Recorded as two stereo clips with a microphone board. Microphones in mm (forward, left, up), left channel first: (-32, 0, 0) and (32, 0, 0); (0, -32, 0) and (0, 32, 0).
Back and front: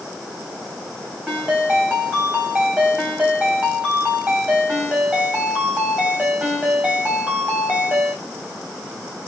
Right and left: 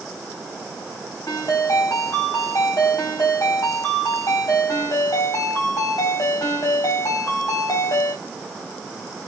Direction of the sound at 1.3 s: 65° right.